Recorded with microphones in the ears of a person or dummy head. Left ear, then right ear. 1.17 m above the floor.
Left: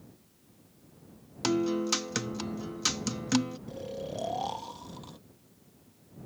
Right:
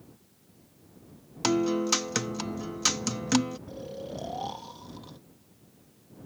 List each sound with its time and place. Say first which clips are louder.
1.4 s a guitar: right 3 dB; 15° right (ahead or behind)
3.7 s snoring: left 1 dB; 20° left (ahead or behind)